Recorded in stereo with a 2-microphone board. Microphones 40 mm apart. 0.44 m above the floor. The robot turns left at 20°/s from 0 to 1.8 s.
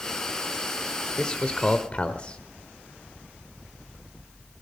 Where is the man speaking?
25° left (ahead or behind), 1.2 m; by 2.4 s 30° left (ahead or behind), 1.2 m.